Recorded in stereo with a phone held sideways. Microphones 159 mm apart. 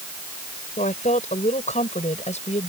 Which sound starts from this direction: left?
A woman speaking, at 0.8 s.